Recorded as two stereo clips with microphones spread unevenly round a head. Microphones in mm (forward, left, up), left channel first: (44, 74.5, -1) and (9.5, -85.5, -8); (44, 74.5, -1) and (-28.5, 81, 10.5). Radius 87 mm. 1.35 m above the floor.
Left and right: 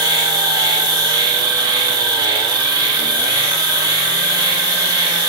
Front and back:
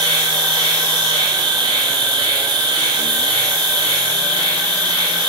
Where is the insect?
170° right, 2.5 m.